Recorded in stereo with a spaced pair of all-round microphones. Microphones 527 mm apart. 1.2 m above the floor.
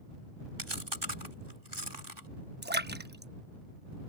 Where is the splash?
20° right (ahead or behind).